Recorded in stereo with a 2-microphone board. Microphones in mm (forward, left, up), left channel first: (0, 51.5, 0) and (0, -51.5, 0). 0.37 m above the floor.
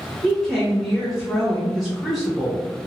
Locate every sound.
0.2 s a woman speaking: centre (ahead or behind), 1.0 m